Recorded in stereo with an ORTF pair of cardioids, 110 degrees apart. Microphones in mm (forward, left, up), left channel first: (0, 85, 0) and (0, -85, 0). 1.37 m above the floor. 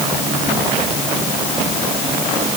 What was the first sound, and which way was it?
Only background noise.